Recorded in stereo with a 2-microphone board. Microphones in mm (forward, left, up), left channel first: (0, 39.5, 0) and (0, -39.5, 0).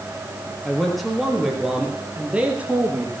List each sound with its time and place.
0.7 s a man speaking: 5° left (ahead or behind), 4 m; by 3.1 s 20° right (ahead or behind), 4 m